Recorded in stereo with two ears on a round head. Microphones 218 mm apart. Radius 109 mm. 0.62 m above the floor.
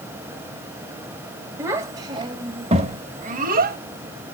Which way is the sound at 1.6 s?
10° right (ahead or behind).